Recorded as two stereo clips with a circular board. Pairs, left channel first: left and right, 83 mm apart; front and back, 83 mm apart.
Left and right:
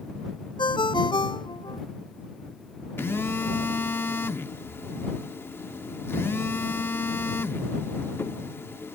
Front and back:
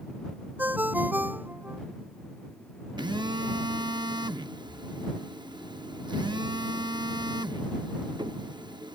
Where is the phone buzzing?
150° left.